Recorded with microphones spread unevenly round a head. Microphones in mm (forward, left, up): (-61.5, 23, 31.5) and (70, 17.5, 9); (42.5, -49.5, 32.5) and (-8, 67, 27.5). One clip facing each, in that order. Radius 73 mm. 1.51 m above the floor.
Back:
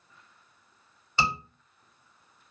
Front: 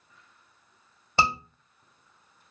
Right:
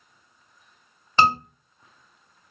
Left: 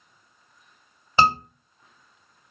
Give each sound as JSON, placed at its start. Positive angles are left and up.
{"t": 1.2, "sound": "a scream", "azimuth_deg": 30, "distance_m": 2.0}